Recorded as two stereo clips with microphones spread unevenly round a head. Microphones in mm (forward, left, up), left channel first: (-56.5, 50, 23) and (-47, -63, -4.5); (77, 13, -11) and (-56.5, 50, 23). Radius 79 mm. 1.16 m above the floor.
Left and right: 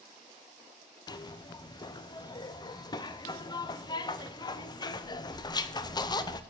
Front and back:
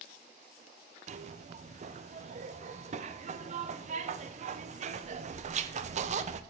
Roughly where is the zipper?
Behind left.